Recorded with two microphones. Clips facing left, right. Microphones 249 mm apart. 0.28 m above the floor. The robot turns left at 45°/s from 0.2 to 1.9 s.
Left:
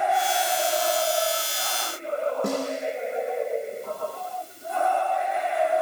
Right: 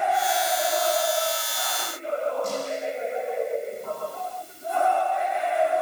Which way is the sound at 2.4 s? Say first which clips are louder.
Left 2 dB; 60° left (ahead or behind).